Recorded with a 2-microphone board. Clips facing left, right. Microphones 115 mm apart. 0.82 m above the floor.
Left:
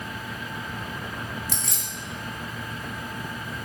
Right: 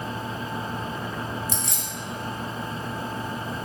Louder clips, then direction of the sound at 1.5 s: Right 3 dB; 25° right (ahead or behind).